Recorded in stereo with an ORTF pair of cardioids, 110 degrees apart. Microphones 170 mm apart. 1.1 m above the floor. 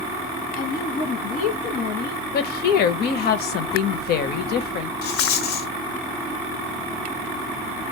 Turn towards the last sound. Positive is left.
turn(degrees=70)